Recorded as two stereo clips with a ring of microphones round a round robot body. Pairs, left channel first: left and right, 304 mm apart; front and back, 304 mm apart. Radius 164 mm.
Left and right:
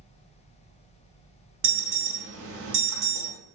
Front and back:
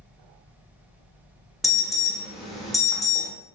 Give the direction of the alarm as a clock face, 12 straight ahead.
3 o'clock.